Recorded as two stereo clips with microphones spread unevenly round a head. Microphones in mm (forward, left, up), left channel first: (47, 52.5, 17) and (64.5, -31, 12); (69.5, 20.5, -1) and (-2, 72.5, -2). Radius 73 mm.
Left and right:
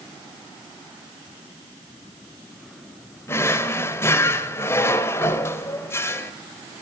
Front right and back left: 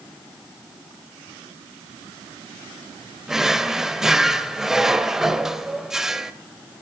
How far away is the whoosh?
I don't hear a whoosh.